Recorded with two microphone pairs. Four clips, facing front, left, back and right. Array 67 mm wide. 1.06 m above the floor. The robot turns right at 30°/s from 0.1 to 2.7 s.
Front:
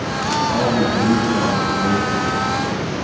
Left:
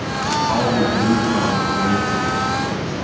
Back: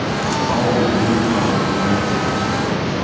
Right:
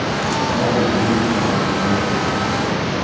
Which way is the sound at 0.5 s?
135° left.